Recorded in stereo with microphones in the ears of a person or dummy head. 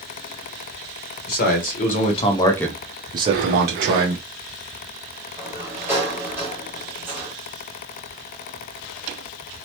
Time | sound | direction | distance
1.3 | a man speaking | 50° left (ahead or behind) | 1.1 m
3.2 | breathing | 40° right (ahead or behind) | 0.8 m
5.4 | a sliding door | 10° right (ahead or behind) | 1.3 m